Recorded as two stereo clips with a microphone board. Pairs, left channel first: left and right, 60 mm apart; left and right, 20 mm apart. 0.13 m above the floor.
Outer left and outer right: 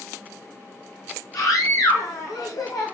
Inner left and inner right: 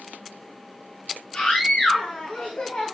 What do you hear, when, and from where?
1.3 s a scream: 80° left, 8.5 m